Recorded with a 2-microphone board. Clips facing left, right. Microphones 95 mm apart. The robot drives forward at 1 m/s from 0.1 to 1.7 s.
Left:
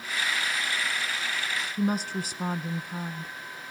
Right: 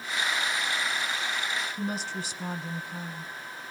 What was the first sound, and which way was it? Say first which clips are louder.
A woman speaking: left 5 dB; 45° left (ahead or behind).